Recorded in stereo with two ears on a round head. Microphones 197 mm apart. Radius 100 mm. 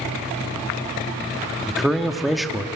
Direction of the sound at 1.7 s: Centre (ahead or behind).